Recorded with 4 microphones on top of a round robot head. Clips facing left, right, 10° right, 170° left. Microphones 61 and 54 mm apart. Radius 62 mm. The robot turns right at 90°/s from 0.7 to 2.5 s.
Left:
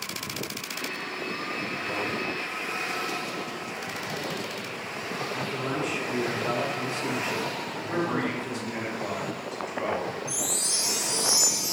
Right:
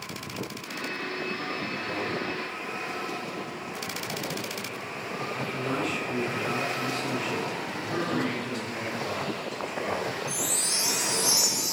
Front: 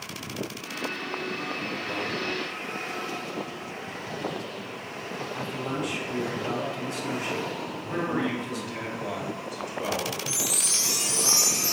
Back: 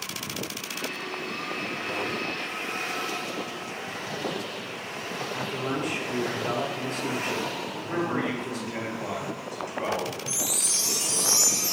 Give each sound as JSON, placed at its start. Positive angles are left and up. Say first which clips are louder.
{"t": 5.3, "sound": "a man speaking", "louder": "right 1 dB, back 2 dB", "azimuth_deg": 150, "distance_m": 1.0}
{"t": 7.9, "sound": "a man speaking", "louder": "left 1 dB, even", "azimuth_deg": 145, "distance_m": 1.9}
{"t": 10.3, "sound": "a chime", "louder": "right 1 dB, front 1 dB", "azimuth_deg": -45, "distance_m": 0.7}